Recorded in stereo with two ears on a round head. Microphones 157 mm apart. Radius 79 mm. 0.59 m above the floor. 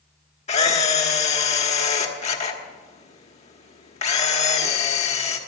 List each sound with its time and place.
0.5 s a camera shutter: 40° left (ahead or behind), 1.3 m